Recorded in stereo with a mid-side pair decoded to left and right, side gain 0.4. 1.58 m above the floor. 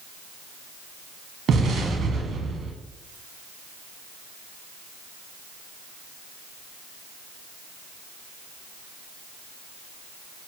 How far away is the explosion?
About 1.1 m.